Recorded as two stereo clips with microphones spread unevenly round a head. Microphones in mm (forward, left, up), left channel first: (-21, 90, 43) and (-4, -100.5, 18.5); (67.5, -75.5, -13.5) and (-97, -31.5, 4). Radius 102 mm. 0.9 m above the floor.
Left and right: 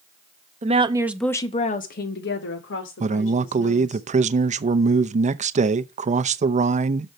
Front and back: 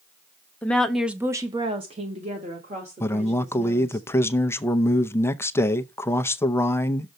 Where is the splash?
I don't hear a splash.